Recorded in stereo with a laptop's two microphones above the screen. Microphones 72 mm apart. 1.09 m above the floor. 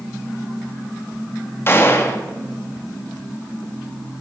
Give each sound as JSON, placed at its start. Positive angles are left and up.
{"t": 1.7, "sound": "a gunshot", "side_deg": 35, "distance_m": 2.0}